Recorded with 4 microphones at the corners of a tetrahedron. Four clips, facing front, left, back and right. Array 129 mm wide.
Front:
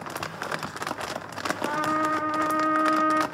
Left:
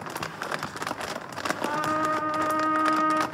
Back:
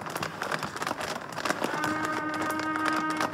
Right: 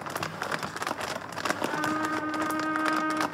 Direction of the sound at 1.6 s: 45° left.